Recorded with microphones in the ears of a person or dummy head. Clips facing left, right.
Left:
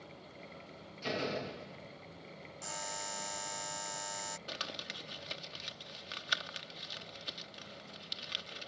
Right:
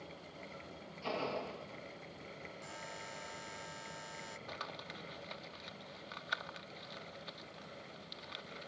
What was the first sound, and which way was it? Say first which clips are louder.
A door slam: left 2 dB; 20° left (ahead or behind).